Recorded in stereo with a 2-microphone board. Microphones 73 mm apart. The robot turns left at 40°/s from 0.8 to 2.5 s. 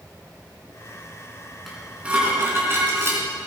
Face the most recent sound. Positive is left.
turn(degrees=-35)